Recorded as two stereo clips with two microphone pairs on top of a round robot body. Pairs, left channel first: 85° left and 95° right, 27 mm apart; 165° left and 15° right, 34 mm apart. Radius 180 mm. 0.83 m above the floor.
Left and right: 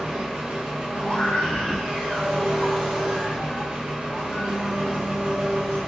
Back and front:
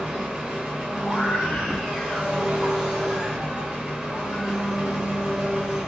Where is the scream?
120° left, 1.9 m.